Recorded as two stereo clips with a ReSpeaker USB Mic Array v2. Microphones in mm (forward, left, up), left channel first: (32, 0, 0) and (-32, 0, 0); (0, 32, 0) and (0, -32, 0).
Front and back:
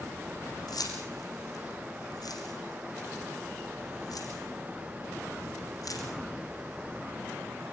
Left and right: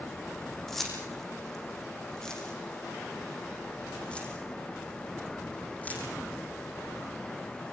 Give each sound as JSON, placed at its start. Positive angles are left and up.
{"t": 0.7, "sound": "keys jangling", "azimuth_deg": 5, "distance_m": 9.0}